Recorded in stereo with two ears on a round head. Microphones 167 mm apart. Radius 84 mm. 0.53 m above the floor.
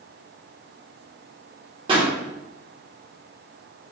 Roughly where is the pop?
Right.